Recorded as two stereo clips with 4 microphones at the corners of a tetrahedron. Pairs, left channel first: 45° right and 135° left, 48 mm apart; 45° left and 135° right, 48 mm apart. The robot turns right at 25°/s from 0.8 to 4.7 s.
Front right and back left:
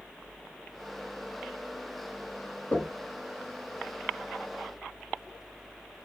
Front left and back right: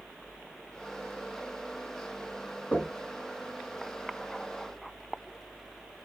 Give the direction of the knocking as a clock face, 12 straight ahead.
12 o'clock.